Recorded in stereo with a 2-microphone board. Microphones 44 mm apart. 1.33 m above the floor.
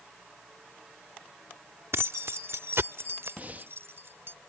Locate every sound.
1.9 s keys jangling: 75° right (ahead or behind); by 4.3 s 65° right (ahead or behind)
3.4 s breathing: 40° right (ahead or behind)